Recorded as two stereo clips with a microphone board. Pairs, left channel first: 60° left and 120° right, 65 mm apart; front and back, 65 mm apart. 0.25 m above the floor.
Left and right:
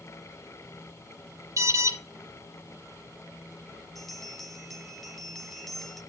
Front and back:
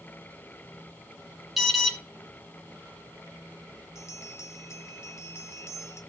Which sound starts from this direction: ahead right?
A bell, at 4.0 s.